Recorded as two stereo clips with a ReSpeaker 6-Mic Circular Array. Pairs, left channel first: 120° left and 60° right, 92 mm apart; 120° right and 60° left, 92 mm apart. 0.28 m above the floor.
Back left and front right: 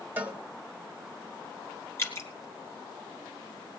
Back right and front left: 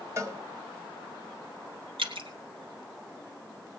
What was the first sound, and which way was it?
A cowbell, 5° left.